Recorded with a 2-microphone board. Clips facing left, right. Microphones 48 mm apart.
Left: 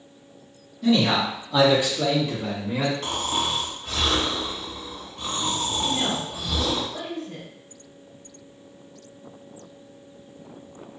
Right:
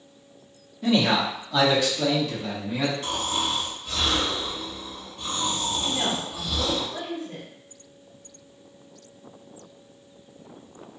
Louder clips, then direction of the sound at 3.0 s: Left 1 dB; 65° left (ahead or behind).